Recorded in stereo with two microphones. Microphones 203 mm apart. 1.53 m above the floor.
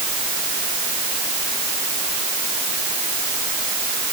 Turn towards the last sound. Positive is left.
No sound to turn to.